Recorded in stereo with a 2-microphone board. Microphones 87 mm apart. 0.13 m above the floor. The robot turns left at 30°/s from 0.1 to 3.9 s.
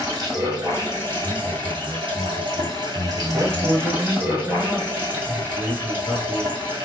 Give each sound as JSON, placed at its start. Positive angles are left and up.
{"t": 0.0, "sound": "running water", "azimuth_deg": -40, "distance_m": 1.2}
{"t": 1.2, "sound": "a man speaking", "azimuth_deg": -135, "distance_m": 1.8}
{"t": 3.3, "sound": "a man speaking", "side_deg": 5, "distance_m": 1.1}